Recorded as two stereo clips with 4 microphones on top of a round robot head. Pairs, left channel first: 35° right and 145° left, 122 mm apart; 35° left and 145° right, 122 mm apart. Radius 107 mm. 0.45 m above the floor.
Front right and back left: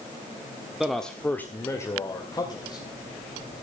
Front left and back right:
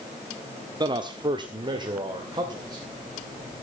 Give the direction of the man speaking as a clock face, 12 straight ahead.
4 o'clock.